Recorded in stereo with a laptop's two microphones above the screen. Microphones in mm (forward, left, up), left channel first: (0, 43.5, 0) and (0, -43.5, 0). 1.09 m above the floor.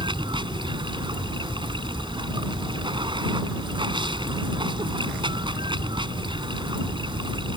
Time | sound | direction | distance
0.0 | running water | 70° right (ahead or behind) | ?